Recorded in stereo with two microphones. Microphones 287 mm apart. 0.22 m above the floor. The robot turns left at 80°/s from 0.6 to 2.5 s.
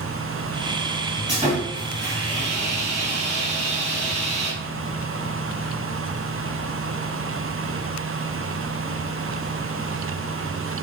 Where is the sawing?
20° right, 1.9 m; by 4.5 s 115° right, 1.9 m.